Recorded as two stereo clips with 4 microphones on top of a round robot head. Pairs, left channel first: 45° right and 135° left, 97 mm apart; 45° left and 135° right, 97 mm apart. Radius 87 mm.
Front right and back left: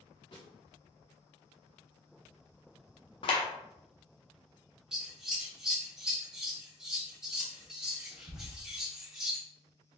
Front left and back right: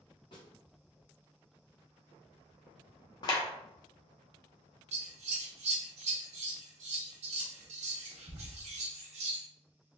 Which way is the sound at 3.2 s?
5° right.